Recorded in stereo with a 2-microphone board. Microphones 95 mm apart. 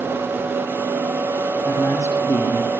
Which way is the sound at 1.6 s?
35° left (ahead or behind).